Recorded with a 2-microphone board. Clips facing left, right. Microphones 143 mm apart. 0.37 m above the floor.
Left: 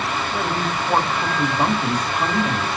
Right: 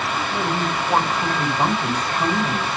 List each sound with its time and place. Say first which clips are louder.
0.3 s a woman speaking: right 1 dB; 5° left (ahead or behind), 1.3 m